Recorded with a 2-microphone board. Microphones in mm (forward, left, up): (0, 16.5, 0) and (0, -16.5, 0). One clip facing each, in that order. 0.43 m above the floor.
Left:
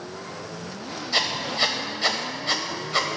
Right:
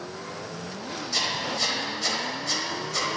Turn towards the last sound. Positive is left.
turn(degrees=40)  # may be behind; listen again after turning